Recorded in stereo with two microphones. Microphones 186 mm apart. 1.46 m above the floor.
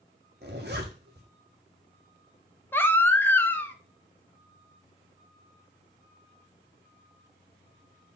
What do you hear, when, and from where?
0.4 s a zipper: 55° right (ahead or behind), 1.6 m
2.7 s a baby crying: 10° left (ahead or behind), 0.8 m